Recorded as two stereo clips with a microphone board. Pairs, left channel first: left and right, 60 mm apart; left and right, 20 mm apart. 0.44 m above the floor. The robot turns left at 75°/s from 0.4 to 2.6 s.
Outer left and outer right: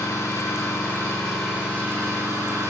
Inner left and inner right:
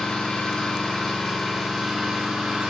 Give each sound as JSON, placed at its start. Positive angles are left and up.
{"t": 0.0, "sound": "an engine running", "azimuth_deg": 75, "distance_m": 5.5}